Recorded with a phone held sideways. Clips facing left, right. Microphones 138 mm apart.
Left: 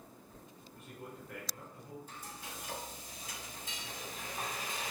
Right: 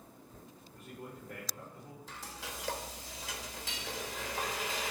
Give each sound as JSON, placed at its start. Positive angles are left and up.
{"t": 0.7, "sound": "a man speaking", "side_deg": -35, "distance_m": 2.0}
{"t": 2.1, "sound": "frying", "side_deg": -75, "distance_m": 1.1}